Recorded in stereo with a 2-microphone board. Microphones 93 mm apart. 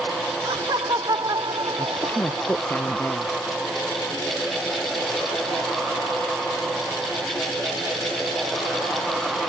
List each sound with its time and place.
0.5 s laughter: 55° right (ahead or behind)
1.8 s a woman speaking: 20° left (ahead or behind)